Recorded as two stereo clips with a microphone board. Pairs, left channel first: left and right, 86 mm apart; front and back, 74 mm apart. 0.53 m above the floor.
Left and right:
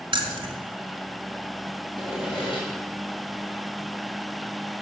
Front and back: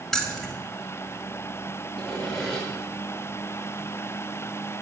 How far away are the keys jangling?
About 1.5 m.